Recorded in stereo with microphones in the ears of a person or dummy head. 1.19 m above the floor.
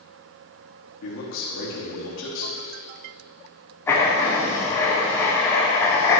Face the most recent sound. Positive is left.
turn(degrees=15)  # may be behind; listen again after turning